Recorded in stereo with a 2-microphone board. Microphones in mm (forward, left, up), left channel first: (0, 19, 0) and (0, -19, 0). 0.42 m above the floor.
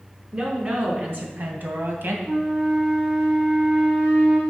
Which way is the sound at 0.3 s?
35° right (ahead or behind).